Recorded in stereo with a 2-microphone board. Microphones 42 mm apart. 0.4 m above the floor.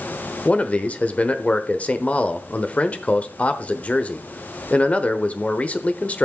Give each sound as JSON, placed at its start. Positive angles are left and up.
{"t": 0.5, "sound": "a man speaking", "side_deg": 35, "distance_m": 1.0}